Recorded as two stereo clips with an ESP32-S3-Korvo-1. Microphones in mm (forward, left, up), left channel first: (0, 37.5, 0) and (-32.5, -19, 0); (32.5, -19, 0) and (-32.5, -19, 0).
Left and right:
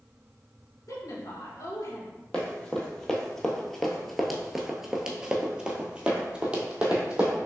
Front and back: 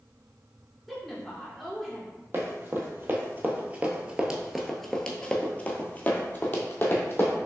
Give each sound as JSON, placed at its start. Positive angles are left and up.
{"t": 0.9, "sound": "a woman speaking", "azimuth_deg": 90, "distance_m": 1.4}
{"t": 2.3, "sound": "running footsteps", "azimuth_deg": 135, "distance_m": 1.3}